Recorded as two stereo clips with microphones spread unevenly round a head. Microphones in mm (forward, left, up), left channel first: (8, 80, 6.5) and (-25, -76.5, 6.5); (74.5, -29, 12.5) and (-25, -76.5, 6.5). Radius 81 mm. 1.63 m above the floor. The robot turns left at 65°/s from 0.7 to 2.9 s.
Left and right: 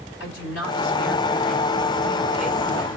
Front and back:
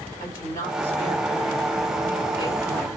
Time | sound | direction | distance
0.2 | a woman speaking | 95° left | 4.5 m